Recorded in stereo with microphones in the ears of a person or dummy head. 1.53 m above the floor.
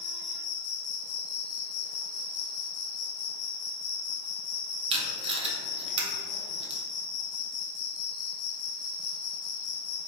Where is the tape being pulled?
25° right (ahead or behind), 0.9 m.